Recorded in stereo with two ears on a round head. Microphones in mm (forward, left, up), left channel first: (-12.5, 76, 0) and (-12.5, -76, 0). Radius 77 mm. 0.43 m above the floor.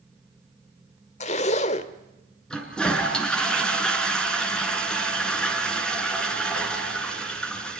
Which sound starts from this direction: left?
A zipper, at 1.2 s.